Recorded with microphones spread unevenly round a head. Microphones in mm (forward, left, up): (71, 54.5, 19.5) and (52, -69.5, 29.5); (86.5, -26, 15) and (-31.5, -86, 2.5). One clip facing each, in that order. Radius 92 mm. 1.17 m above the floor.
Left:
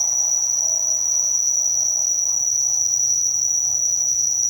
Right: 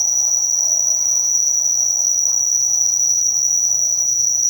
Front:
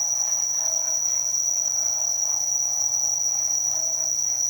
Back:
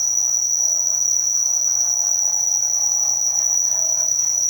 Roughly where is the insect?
Behind right.